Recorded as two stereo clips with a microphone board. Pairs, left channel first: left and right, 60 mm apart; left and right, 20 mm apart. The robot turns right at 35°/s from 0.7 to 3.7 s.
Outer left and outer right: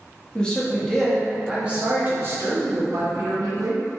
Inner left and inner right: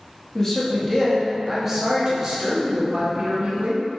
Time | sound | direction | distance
0.3 | a man speaking | 165° left | 0.8 m